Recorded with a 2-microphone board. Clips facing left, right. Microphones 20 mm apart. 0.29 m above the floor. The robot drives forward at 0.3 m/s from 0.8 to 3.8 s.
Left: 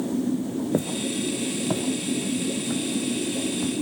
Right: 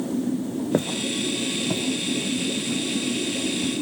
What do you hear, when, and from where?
0.7 s footsteps: 30° right (ahead or behind), 0.7 m; by 3.7 s 60° left (ahead or behind), 3.5 m